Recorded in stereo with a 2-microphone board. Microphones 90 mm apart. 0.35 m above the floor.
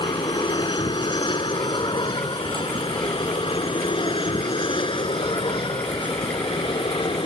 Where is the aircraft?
60° left (ahead or behind); by 7.3 s 70° left (ahead or behind).